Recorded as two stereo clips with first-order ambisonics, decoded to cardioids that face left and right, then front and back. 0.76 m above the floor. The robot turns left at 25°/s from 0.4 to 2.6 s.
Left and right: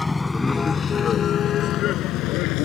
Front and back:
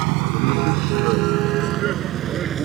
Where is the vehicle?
170° left; by 2.6 s 120° left.